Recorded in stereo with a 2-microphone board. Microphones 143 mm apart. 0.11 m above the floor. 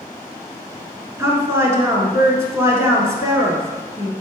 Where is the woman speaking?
20° right (ahead or behind), 1.1 m.